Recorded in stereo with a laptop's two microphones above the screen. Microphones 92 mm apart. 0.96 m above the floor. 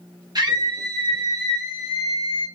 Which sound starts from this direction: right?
A scream, at 0.3 s.